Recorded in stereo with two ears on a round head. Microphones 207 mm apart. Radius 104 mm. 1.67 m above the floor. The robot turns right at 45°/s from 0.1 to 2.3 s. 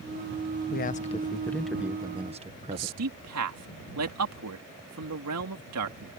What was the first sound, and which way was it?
A man speaking, 135° left.